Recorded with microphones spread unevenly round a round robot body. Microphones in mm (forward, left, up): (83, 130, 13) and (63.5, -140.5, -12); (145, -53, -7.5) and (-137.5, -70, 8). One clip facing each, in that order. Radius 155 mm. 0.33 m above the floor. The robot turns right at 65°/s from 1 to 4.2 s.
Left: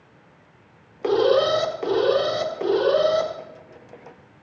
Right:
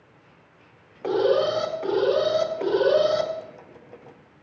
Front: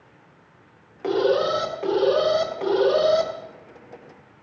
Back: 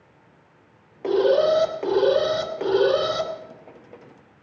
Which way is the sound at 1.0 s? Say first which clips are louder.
Left 3 dB, back 2 dB; 55° left.